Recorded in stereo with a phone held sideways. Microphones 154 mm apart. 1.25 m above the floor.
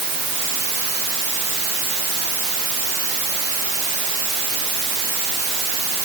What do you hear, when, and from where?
Only background noise.